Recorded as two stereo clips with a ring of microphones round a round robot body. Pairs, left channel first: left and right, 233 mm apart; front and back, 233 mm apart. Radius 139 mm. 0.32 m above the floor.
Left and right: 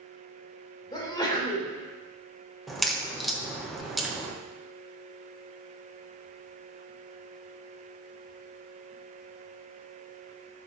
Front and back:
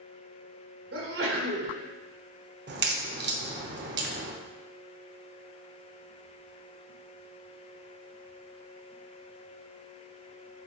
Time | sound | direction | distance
0.9 | a sneeze | 160° left | 3 m
2.7 | a crack | straight behind | 1.3 m